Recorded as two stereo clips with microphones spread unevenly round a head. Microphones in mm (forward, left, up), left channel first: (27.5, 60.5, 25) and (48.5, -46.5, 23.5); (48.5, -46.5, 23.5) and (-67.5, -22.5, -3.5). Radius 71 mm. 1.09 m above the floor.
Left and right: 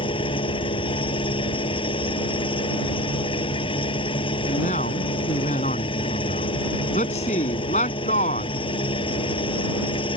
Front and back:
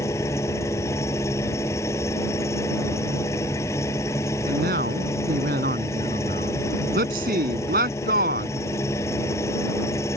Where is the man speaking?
145° left.